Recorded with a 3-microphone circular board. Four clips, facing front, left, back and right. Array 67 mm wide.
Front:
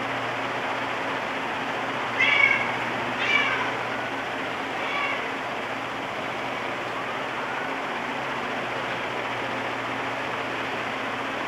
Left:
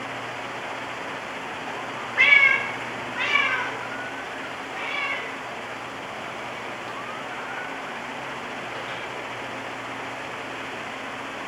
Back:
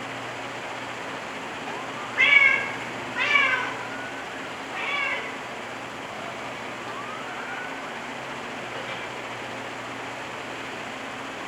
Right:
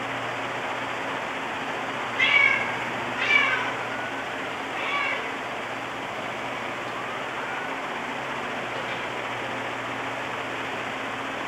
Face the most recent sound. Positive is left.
turn(degrees=-160)